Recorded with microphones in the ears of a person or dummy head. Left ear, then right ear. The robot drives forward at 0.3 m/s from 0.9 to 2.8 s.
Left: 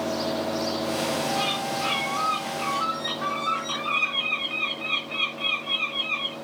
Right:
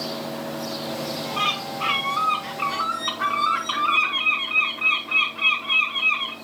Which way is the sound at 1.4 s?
40° right (ahead or behind).